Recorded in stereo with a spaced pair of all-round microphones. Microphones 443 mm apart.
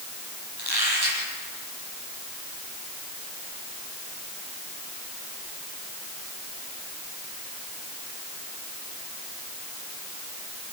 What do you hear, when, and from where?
0.6 s a squeak: 60° right (ahead or behind), 8.5 m